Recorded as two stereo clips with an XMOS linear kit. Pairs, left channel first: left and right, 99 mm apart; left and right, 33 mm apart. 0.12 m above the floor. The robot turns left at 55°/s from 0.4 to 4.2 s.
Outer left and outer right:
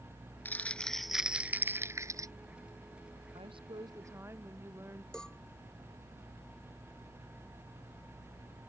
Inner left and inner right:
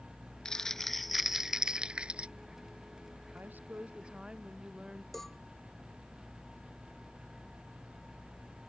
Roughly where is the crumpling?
Ahead left.